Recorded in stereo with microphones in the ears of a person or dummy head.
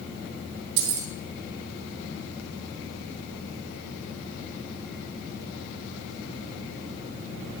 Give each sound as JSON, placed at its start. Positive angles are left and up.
{"t": 0.8, "sound": "keys jangling", "side_deg": -60, "distance_m": 1.9}